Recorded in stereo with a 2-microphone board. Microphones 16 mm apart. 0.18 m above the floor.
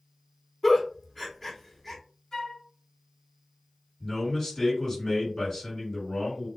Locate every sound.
0.6 s a giggle: 15° left (ahead or behind), 0.8 m
2.3 s a flute: 40° left (ahead or behind), 1.7 m
4.0 s a man speaking: 35° left (ahead or behind), 1.9 m